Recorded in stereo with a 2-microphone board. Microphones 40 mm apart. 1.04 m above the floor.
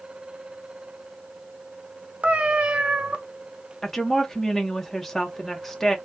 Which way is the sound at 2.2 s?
30° right (ahead or behind).